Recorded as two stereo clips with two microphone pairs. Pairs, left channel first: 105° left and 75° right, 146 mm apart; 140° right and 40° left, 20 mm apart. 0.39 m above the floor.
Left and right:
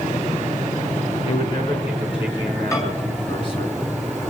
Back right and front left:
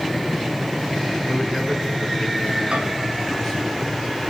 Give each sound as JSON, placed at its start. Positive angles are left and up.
{"t": 1.2, "sound": "a man speaking", "azimuth_deg": 155, "distance_m": 4.0}
{"t": 2.7, "sound": "a microwave", "azimuth_deg": 40, "distance_m": 2.5}